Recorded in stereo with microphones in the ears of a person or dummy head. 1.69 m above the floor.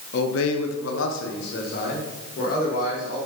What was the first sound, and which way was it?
A man speaking, 60° left (ahead or behind).